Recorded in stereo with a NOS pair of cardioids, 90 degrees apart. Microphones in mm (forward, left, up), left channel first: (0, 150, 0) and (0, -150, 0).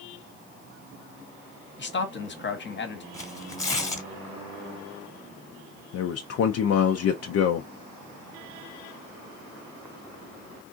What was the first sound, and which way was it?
A man speaking, 40° left.